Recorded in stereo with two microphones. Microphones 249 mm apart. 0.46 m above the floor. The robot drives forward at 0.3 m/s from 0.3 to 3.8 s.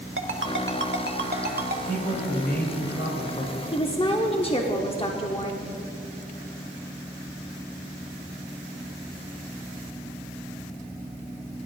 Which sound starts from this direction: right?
A ringtone, at 0.2 s.